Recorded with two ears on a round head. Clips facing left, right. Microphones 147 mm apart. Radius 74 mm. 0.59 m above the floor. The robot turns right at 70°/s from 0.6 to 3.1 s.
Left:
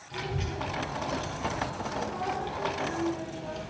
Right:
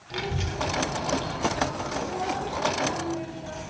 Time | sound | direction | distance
0.1 | a child speaking | 60° right (ahead or behind) | 1.4 m